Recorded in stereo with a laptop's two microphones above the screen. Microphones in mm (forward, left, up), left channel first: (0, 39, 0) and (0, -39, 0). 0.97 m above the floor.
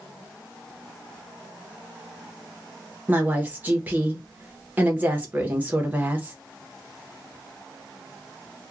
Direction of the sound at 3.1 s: 20° right (ahead or behind).